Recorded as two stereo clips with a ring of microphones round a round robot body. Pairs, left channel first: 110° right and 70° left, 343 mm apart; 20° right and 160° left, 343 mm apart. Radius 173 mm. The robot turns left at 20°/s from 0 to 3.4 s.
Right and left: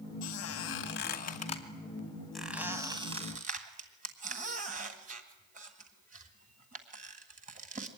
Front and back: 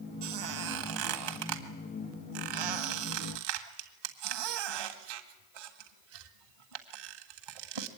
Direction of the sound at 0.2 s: 160° right.